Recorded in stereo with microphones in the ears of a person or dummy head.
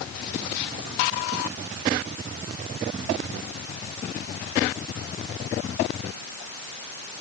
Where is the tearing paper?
I don't hear tearing paper.